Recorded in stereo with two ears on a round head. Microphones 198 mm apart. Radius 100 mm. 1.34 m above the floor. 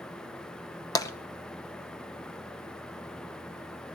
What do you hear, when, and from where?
0.9 s tapping: 15° left (ahead or behind), 0.8 m